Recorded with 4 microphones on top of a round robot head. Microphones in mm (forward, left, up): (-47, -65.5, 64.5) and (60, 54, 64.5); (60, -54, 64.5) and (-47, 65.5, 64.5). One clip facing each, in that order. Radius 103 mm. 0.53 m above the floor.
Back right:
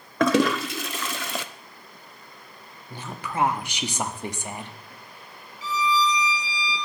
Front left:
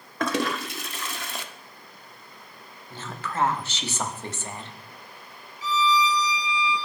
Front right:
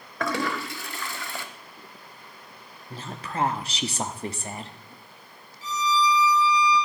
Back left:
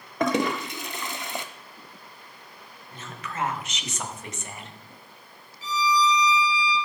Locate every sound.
0.2 s a toilet flushing: 155° right, 0.7 m
2.9 s a woman speaking: 65° right, 1.4 m
5.6 s a violin: 165° left, 3.5 m